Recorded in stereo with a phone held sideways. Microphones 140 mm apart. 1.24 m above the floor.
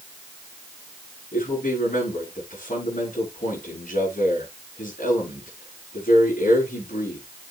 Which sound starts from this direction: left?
A man speaking, at 1.3 s.